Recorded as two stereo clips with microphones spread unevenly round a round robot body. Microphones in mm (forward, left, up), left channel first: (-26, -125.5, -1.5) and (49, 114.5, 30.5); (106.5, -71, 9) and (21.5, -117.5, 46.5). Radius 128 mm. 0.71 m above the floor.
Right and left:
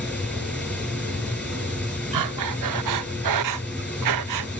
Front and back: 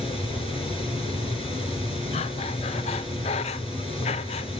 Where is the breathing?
70° left, 0.6 m.